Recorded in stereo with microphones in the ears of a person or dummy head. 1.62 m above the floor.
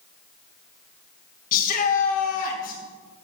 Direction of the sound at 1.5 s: 55° left (ahead or behind).